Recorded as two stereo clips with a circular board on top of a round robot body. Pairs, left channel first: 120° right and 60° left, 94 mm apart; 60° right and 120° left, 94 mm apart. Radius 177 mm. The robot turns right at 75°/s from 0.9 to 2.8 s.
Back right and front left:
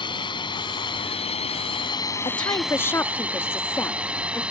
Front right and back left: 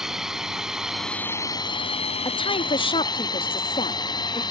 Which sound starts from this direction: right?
A woman speaking, at 2.2 s.